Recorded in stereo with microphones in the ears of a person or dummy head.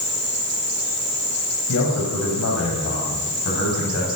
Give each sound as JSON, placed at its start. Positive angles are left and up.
{"t": 1.7, "sound": "a man speaking", "side_deg": 85, "distance_m": 7.0}